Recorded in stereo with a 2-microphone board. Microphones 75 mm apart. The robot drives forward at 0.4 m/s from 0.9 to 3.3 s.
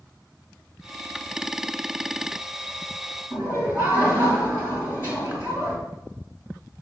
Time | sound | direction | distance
3.3 | laughter | 25° right (ahead or behind) | 2 m